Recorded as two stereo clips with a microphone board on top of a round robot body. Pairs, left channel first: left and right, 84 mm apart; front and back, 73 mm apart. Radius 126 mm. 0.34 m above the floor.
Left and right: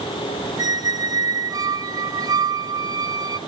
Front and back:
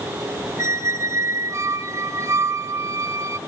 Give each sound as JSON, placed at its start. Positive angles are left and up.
{"t": 0.6, "sound": "a squeak", "azimuth_deg": -130, "distance_m": 1.0}